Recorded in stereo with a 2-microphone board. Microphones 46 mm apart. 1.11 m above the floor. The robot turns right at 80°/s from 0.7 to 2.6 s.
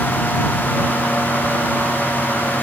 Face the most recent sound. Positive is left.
No sound to turn to.